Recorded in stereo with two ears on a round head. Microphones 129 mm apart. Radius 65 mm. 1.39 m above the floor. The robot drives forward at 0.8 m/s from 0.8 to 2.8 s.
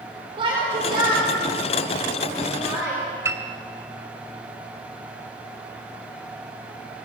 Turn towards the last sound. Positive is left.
turn(degrees=-20)  # may be behind; listen again after turning